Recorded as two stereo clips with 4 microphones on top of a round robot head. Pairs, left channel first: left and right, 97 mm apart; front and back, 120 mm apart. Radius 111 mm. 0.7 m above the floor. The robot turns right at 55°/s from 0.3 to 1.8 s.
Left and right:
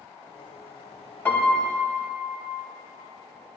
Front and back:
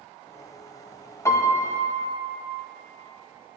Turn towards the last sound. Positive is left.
turn(degrees=65)